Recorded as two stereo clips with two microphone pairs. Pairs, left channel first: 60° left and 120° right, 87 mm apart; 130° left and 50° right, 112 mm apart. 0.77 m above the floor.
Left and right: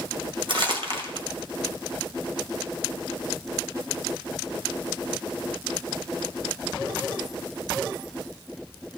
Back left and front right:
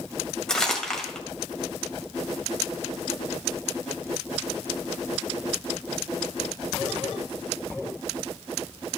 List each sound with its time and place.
0.5 s crumpling: 145° right, 2.5 m